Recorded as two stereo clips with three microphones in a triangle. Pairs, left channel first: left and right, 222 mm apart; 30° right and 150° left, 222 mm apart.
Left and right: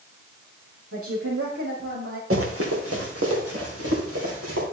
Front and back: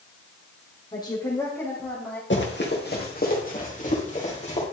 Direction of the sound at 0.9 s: 100° right.